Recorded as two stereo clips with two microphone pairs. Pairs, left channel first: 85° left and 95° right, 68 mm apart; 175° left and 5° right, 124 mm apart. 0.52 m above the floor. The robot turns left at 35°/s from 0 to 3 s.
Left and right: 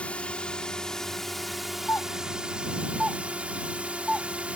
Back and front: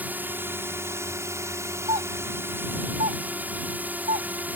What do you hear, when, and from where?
0.0 s a drone: 50° left; by 4.6 s 55° right
1.9 s a doorbell: 30° left; by 4.3 s 10° right